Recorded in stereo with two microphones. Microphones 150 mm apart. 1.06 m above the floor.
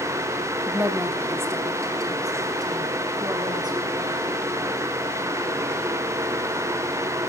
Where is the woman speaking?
5° right (ahead or behind), 2.5 m; by 4.3 s 30° right (ahead or behind), 7.5 m.